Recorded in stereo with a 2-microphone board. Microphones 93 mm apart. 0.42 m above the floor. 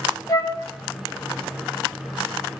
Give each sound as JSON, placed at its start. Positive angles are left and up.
{"t": 0.3, "sound": "a flute", "side_deg": 40, "distance_m": 0.5}